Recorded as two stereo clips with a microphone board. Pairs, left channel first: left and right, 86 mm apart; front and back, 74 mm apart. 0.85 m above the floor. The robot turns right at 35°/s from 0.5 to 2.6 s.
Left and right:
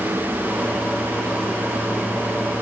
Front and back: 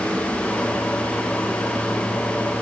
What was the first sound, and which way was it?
Only background noise.